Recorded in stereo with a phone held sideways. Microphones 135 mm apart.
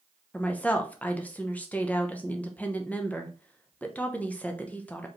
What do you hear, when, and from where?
0.3 s a woman speaking: 10° left (ahead or behind), 0.8 m